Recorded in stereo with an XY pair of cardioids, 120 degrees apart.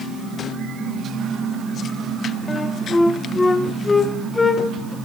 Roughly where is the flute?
Ahead.